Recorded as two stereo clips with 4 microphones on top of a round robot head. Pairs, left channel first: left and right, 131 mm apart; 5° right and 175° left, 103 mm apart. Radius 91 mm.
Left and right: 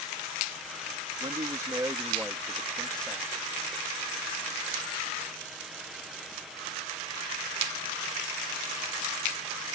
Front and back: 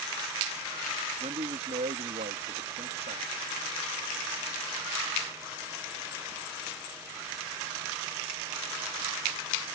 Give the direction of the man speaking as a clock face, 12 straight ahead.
5 o'clock.